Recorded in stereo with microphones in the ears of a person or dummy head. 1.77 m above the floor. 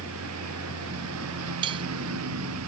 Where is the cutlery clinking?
25° right (ahead or behind).